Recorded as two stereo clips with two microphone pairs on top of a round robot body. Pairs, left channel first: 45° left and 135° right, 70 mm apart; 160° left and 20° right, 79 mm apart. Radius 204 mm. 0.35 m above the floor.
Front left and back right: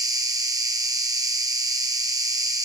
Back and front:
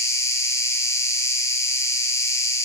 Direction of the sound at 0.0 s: 150° right.